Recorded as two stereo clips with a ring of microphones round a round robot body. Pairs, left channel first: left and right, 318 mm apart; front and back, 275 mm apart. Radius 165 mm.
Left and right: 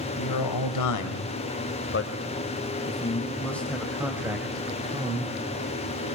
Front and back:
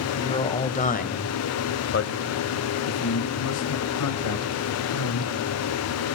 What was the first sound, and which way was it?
A man speaking, 70° left.